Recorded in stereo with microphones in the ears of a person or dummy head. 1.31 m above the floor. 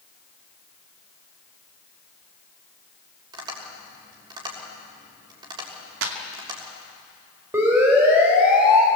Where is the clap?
80° right, 2.5 m.